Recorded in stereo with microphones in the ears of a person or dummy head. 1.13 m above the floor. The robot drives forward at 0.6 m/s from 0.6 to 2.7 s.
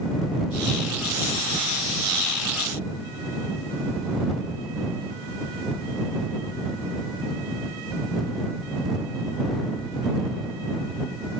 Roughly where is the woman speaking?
I don't hear a woman speaking.